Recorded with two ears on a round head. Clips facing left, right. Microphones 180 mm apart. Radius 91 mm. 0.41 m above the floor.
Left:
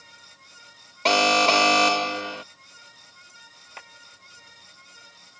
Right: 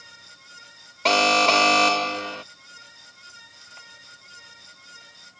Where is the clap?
75° left (ahead or behind).